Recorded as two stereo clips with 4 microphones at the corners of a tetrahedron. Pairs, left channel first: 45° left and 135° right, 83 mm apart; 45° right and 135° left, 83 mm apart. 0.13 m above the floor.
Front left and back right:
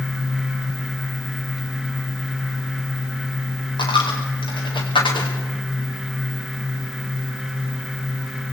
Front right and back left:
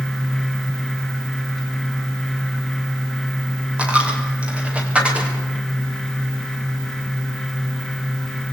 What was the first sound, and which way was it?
A dropped coin, 60° left.